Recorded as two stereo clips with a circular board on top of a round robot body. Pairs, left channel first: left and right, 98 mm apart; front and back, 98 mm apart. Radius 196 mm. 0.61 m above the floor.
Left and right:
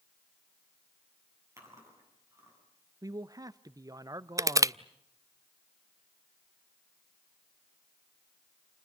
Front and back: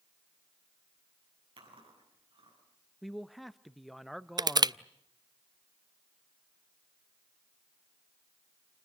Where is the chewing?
150° right, 8.5 m.